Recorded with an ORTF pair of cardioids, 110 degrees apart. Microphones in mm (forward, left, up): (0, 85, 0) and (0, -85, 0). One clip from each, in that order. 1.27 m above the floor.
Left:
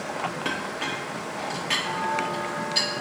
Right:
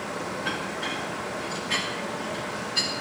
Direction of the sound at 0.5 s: 60° left.